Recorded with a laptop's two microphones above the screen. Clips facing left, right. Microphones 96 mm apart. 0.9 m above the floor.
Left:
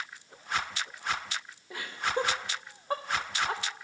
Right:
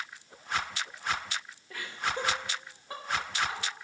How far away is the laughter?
About 1.2 m.